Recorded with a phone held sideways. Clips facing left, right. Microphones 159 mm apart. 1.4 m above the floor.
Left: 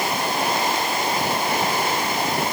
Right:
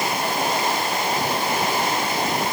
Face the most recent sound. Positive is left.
No sound to turn to.